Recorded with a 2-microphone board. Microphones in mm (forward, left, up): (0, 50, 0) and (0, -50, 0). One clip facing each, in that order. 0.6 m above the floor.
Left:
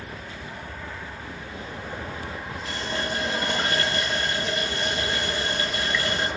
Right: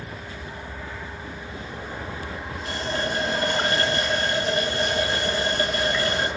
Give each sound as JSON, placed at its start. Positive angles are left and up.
{"t": 2.6, "sound": "a running tap", "side_deg": -40, "distance_m": 1.7}